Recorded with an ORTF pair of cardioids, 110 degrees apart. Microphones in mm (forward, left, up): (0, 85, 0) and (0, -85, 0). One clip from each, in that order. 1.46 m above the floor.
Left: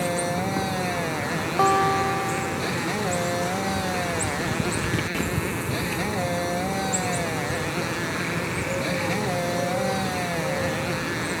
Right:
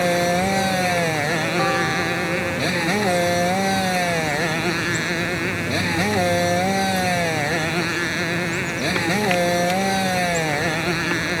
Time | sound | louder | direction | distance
0.0 | a motorcycle | right 7 dB | 40° right | ?
1.6 | a guitar | left 5 dB | 35° left | ?